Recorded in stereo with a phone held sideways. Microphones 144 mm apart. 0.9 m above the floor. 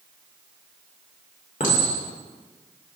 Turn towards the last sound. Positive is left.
turn(degrees=75)  # may be behind; listen again after turning